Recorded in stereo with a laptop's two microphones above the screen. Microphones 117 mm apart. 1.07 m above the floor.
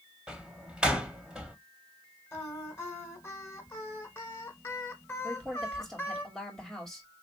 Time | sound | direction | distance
0.3 | a door slam | 5° right (ahead or behind) | 0.6 m
2.3 | singing | 20° left (ahead or behind) | 1.0 m
5.2 | a woman speaking | centre (ahead or behind) | 2 m